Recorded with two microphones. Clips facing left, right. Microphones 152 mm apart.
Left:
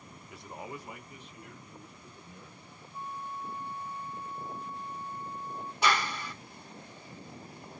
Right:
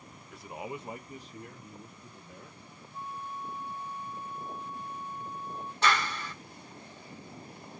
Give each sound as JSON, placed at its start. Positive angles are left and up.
{"t": 0.3, "sound": "a man speaking", "side_deg": 5, "distance_m": 0.6}
{"t": 2.9, "sound": "a flute", "side_deg": 65, "distance_m": 1.3}
{"t": 5.8, "sound": "a clap", "side_deg": 10, "distance_m": 1.0}